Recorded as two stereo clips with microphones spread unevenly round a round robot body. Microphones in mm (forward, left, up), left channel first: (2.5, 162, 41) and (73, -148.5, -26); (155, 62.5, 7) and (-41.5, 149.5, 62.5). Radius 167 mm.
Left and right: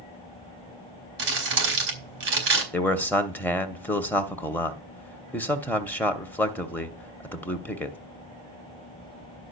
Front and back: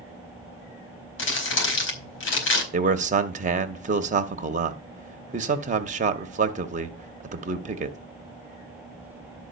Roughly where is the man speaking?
Behind right.